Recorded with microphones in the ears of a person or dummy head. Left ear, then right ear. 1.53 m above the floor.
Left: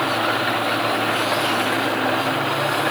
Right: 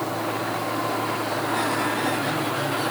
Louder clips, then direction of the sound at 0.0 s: Left 7 dB; 70° left (ahead or behind).